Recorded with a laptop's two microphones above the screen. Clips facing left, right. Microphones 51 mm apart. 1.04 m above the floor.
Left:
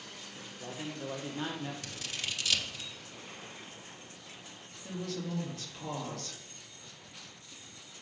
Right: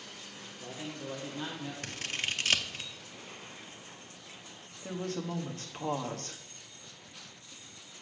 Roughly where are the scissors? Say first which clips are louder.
Right 4 dB; right.